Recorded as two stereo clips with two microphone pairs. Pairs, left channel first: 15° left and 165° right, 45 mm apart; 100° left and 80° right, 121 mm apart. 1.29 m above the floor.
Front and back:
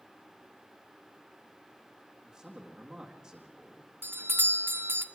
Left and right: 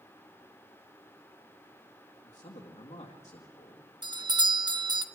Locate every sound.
2.2 s a man speaking: 120° left, 2.0 m
4.0 s a doorbell: 130° right, 0.8 m